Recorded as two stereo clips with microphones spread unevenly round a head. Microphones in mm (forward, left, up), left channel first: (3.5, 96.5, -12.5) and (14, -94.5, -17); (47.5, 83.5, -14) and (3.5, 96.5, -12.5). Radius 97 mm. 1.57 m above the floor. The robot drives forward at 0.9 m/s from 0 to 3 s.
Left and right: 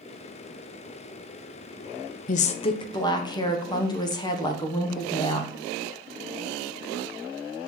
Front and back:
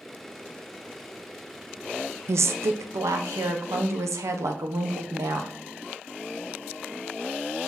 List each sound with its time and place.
2.3 s a woman speaking: 140° left, 0.5 m; by 5.5 s 165° left, 1.1 m